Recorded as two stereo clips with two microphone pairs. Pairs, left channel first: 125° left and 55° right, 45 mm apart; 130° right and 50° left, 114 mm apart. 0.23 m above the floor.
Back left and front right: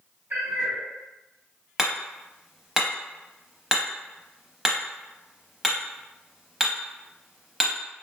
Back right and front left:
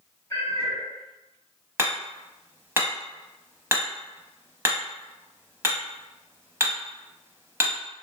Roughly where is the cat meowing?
Right.